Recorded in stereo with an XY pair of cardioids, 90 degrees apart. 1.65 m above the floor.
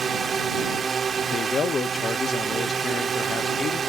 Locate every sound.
0.0 s a drone: 50° right
1.2 s a man speaking: 50° left